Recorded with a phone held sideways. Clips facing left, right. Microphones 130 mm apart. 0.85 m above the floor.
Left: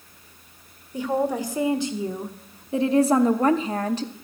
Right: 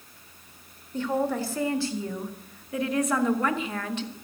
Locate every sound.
0.9 s a woman speaking: 15° left (ahead or behind), 1.7 m; by 4.1 s 40° left (ahead or behind), 1.1 m